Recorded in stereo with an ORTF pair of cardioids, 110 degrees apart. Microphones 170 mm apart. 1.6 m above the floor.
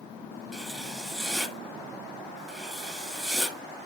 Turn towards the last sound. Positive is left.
turn(degrees=0)